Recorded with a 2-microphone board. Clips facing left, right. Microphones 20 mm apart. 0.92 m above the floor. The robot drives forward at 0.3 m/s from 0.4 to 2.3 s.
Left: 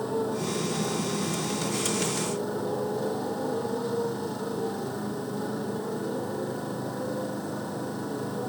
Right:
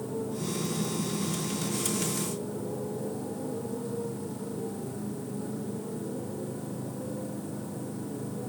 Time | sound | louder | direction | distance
0.0 | a motorcycle | left 5 dB | 50° left (ahead or behind) | ?